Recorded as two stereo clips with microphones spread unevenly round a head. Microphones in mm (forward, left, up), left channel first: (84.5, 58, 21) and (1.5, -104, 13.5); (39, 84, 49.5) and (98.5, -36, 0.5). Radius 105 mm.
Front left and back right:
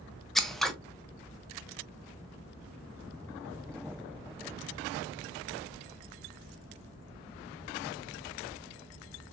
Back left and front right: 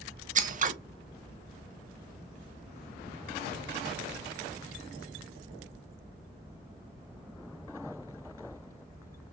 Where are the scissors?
25° right, 0.7 m.